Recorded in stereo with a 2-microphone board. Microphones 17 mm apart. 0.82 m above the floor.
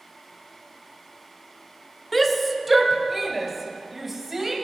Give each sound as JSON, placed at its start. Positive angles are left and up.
{"t": 2.1, "sound": "a shout", "side_deg": 0, "distance_m": 1.4}